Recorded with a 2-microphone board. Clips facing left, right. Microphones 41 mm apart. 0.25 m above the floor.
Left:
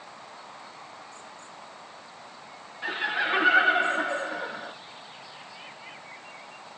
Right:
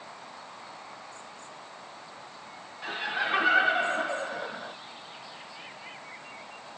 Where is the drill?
I don't hear a drill.